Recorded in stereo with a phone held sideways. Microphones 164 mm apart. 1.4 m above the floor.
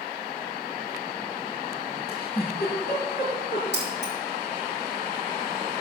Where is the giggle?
70° left (ahead or behind), 4.5 m.